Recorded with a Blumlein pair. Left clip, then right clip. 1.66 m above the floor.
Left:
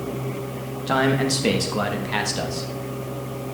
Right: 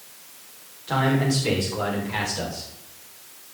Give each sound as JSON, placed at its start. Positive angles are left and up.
{"t": 0.9, "sound": "a man speaking", "azimuth_deg": 50, "distance_m": 3.0}